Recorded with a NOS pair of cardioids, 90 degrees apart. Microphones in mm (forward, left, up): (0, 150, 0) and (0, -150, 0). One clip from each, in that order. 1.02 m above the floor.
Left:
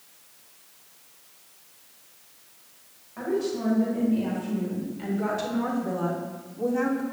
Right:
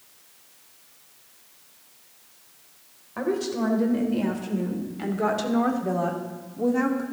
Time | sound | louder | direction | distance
3.2 | a woman speaking | right 1 dB | 65° right | 3.5 m